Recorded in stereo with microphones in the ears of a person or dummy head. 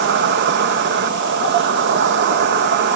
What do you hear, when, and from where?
0.0 s an insect: 55° right (ahead or behind)